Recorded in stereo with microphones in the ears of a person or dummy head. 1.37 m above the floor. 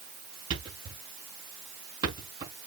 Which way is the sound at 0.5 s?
25° right (ahead or behind).